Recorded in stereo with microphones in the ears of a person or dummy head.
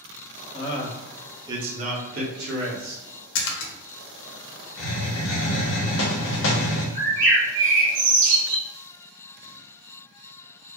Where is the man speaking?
25° left (ahead or behind), 0.7 m; by 3.0 s 70° right (ahead or behind), 1.2 m.